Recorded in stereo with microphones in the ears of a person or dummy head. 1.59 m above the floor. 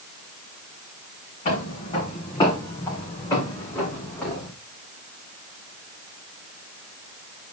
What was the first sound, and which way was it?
Footsteps, 40° left (ahead or behind).